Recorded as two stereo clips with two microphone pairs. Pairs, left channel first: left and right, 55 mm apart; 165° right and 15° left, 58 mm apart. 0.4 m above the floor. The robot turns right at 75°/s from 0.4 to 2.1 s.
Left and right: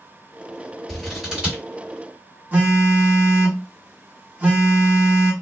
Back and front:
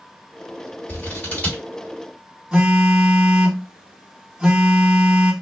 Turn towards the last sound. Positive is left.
turn(degrees=-60)